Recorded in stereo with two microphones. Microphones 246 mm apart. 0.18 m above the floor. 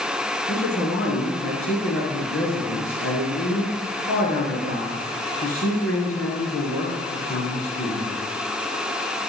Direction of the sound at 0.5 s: 60° left (ahead or behind).